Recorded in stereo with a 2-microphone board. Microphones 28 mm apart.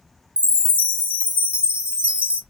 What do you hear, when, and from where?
0.4 s a chime: 40° right (ahead or behind), 1.0 m